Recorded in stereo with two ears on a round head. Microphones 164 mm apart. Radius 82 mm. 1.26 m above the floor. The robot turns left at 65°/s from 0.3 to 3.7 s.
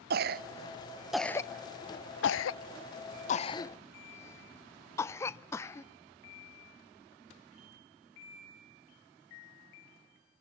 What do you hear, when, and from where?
0.1 s a cough: 55° right (ahead or behind), 0.5 m; by 5.9 s 15° left (ahead or behind), 0.5 m